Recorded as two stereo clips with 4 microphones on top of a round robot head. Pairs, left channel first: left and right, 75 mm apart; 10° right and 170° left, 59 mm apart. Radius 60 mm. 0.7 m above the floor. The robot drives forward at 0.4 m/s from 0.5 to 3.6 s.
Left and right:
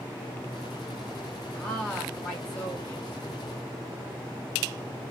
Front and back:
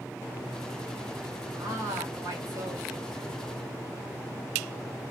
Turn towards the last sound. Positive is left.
turn(degrees=175)